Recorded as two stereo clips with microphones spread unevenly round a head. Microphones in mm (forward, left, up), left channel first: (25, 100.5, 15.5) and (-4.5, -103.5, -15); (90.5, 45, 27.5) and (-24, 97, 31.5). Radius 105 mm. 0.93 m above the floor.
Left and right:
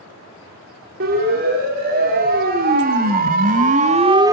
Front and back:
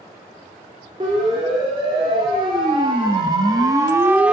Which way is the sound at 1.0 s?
140° right.